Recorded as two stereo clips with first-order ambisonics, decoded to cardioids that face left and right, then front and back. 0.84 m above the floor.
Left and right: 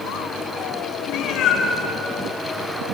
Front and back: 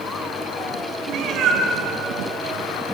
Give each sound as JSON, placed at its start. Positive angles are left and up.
{"t": 1.1, "sound": "a cat meowing", "azimuth_deg": 130, "distance_m": 4.0}